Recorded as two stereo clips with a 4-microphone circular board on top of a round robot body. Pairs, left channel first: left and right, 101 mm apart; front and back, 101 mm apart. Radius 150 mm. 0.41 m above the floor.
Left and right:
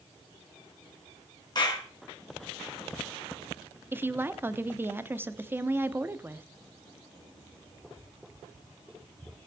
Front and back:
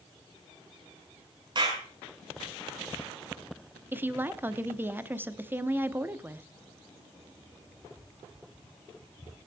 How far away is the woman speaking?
About 1.2 m.